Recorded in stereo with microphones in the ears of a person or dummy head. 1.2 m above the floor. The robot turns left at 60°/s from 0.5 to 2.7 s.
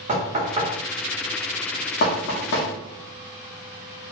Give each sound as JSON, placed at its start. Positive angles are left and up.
{"t": 0.1, "sound": "knocking", "side_deg": -30, "distance_m": 1.3}